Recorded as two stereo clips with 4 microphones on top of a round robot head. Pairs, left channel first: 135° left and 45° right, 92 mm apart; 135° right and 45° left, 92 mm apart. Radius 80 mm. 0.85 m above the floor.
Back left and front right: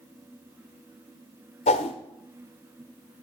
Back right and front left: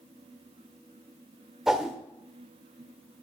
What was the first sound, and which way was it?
A whoosh, 130° left.